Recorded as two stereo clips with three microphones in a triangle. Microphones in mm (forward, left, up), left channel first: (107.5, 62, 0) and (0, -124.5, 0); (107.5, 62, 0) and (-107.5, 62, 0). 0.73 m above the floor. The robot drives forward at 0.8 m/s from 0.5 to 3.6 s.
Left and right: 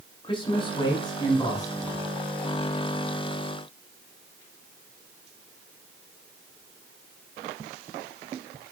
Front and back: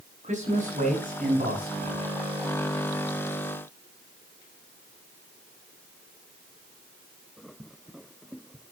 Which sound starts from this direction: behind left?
A man speaking, at 0.2 s.